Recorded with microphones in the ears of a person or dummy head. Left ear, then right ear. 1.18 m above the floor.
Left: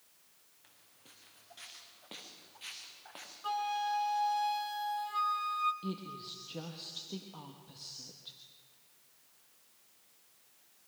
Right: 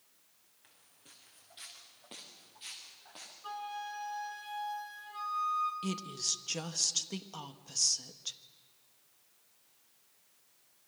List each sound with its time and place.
0.6 s footsteps: 5° right (ahead or behind), 4 m; by 3.3 s 20° left (ahead or behind), 5 m
3.4 s a flute: 20° left (ahead or behind), 1.4 m
5.8 s a woman speaking: 65° right (ahead or behind), 1.4 m